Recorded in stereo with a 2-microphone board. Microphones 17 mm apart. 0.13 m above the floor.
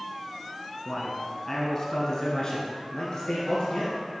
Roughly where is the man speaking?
Centre.